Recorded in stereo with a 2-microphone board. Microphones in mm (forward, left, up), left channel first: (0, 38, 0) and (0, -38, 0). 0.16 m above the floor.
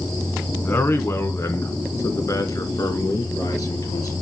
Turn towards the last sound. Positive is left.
turn(degrees=50)  # may be behind; listen again after turning